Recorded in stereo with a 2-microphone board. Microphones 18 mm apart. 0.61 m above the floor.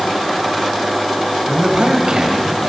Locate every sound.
1.5 s a man speaking: 60° right (ahead or behind), 4 m